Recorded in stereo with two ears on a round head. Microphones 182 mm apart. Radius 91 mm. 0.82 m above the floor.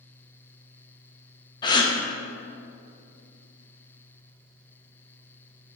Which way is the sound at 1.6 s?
20° left (ahead or behind).